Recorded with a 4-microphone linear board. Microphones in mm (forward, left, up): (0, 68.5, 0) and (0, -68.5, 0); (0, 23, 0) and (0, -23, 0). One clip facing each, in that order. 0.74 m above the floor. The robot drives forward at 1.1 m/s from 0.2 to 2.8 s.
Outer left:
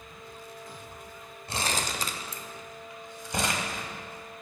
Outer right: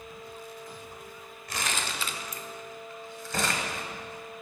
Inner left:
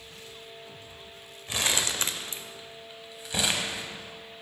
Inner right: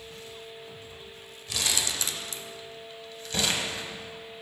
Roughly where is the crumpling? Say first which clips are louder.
Outer left 2 dB, inner left 2 dB; left.